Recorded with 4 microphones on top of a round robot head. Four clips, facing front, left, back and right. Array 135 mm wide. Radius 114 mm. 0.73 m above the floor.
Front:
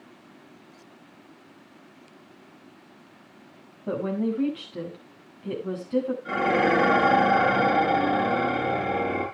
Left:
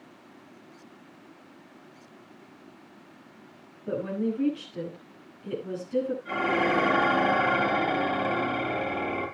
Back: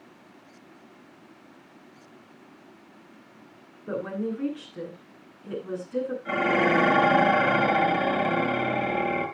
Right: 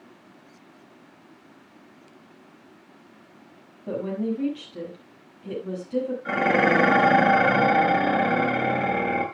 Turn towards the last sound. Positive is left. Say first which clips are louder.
# right 9 dB, back 1 dB
turn(degrees=-85)